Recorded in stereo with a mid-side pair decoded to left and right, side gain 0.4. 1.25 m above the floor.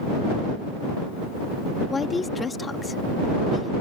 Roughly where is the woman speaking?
Ahead left.